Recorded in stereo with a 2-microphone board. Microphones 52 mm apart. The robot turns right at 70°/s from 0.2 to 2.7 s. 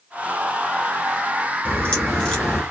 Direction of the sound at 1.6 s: 25° left (ahead or behind).